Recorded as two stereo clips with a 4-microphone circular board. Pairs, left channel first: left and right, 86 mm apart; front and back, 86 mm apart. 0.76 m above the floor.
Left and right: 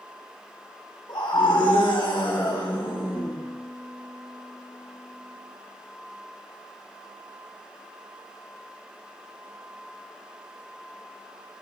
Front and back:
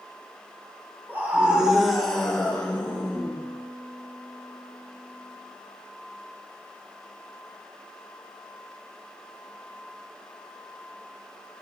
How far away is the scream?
About 1.8 m.